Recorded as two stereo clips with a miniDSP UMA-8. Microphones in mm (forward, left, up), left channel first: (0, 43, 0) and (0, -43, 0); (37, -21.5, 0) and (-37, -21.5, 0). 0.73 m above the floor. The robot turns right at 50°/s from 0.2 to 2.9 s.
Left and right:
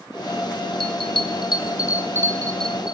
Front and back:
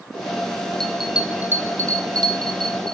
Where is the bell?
85° left, 2.5 m; by 3.0 s 170° right, 2.5 m.